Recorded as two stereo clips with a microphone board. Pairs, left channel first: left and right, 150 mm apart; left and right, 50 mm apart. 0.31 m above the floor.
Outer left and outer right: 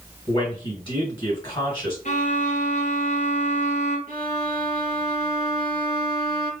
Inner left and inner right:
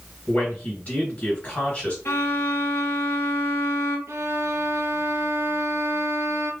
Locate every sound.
0.3 s a man speaking: 30° left (ahead or behind), 1.9 m
2.0 s a violin: 60° left (ahead or behind), 1.1 m
4.1 s a violin: 75° right (ahead or behind), 0.8 m